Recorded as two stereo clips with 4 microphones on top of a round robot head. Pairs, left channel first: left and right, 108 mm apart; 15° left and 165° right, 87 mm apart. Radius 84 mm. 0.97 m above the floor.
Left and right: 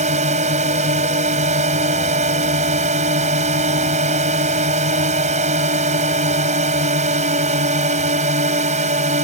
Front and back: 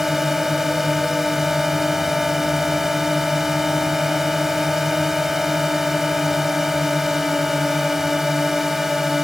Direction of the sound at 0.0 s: 80° right.